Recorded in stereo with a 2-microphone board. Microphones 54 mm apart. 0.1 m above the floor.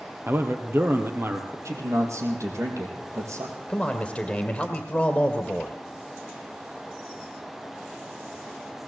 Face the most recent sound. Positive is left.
turn(degrees=15)  # may be behind; listen again after turning